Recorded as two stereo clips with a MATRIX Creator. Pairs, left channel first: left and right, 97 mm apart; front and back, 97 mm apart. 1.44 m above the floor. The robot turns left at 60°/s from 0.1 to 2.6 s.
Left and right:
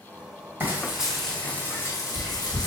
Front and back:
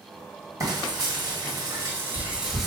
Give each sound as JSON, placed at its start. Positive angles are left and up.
{"t": 0.6, "sound": "frying", "azimuth_deg": -150, "distance_m": 1.6}